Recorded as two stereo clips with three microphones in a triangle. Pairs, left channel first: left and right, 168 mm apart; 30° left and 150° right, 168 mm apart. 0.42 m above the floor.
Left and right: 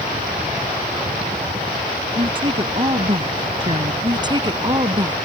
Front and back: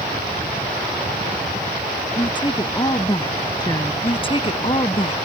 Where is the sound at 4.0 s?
25° right.